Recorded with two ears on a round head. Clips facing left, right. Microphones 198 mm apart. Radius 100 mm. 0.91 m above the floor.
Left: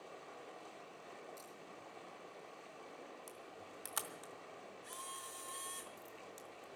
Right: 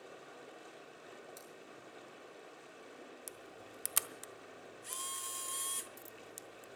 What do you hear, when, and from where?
0.0 s running water: 20° right (ahead or behind), 1.8 m
1.4 s scissors: 45° right (ahead or behind), 7 m
3.3 s a camera shutter: 35° right (ahead or behind), 0.6 m